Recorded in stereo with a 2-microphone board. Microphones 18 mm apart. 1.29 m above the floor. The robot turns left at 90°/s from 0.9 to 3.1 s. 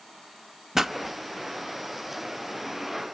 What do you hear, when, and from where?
0.8 s a pop: 30° right (ahead or behind), 0.7 m